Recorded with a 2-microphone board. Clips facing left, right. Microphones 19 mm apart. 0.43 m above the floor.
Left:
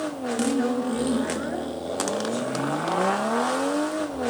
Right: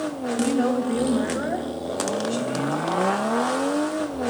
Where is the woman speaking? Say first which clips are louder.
Right 2 dB; 60° right (ahead or behind), 3 m.